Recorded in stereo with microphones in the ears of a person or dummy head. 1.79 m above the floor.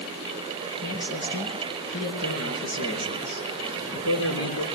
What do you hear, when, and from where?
0.8 s a man speaking: 75° left (ahead or behind), 4 m